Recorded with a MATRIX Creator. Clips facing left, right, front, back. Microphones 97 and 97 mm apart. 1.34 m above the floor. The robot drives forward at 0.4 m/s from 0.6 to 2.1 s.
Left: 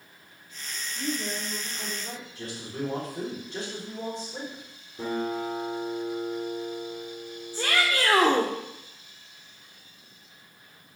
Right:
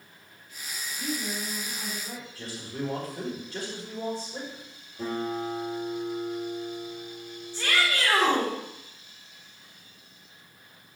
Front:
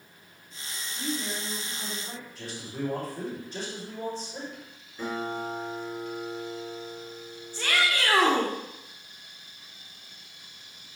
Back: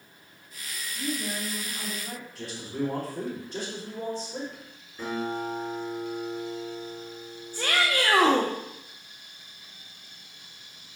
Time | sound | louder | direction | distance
1.0 | a woman speaking | left 1 dB, back 1 dB | 120° left | 3 m
2.4 | a man speaking | left 1 dB, back 4 dB | 160° left | 4.5 m
5.0 | a guitar | left 1 dB, back 1 dB | 100° left | 4 m
7.5 | a shout | left 1 dB, back 1 dB | 135° left | 1.2 m